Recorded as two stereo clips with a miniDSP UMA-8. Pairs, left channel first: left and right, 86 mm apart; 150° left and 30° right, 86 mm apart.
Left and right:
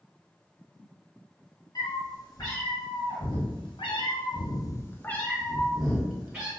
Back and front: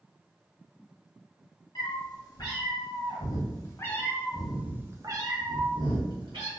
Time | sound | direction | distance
1.8 | a cat meowing | 120° left | 1.6 m